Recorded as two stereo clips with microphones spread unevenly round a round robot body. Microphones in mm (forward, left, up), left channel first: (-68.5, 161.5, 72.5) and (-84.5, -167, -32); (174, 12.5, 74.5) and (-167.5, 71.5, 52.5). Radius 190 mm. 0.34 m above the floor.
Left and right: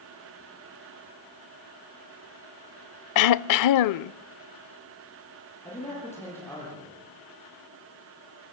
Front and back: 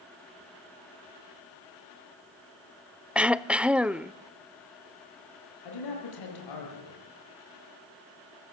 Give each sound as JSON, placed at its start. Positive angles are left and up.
{"t": 3.1, "sound": "throat clearing", "azimuth_deg": 90, "distance_m": 0.6}
{"t": 5.6, "sound": "a man speaking", "azimuth_deg": 0, "distance_m": 9.5}